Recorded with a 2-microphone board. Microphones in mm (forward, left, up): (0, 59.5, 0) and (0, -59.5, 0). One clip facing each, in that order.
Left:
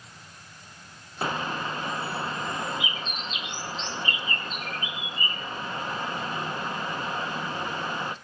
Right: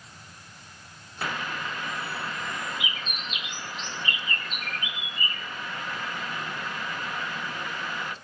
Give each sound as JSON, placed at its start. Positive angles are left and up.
{"t": 1.2, "sound": "a bird", "side_deg": 30, "distance_m": 0.6}